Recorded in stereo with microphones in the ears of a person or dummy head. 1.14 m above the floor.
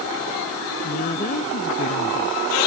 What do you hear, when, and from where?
0.8 s a woman speaking: 45° left (ahead or behind)